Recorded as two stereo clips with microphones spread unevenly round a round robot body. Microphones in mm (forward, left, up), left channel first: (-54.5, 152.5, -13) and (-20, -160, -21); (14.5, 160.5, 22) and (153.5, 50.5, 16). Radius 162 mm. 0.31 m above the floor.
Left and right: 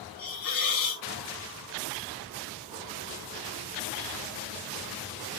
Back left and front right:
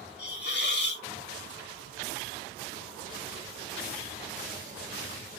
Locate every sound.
0.2 s a hiss: 115° left, 1.7 m